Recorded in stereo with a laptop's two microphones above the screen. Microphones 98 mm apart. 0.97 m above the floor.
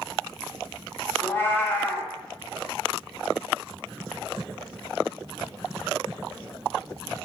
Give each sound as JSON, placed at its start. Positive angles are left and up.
{"t": 1.2, "sound": "a cat meowing", "side_deg": 20, "distance_m": 0.7}